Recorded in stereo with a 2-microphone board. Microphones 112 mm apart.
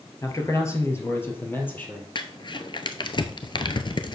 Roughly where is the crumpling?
Left.